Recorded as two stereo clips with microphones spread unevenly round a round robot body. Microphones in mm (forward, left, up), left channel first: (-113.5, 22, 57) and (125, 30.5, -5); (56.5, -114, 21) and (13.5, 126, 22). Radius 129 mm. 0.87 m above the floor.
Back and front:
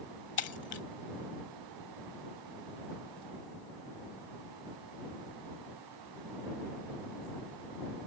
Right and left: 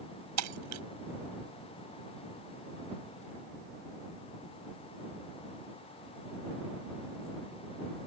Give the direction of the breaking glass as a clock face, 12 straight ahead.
7 o'clock.